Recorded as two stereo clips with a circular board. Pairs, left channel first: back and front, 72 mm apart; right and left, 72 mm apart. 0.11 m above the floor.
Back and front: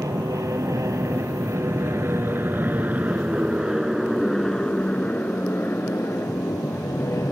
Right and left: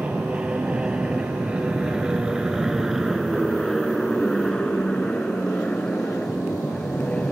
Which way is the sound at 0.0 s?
20° left.